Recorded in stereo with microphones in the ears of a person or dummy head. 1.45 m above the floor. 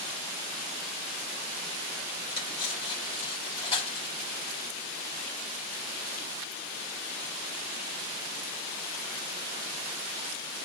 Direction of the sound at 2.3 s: 25° left (ahead or behind).